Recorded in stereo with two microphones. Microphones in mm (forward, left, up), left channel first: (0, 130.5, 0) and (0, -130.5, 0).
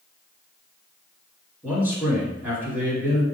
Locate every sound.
1.6 s a man speaking: 5° right (ahead or behind), 1.5 m